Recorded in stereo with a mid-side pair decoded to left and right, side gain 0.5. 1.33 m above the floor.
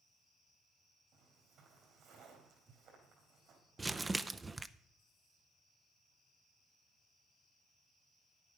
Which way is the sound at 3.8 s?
20° right.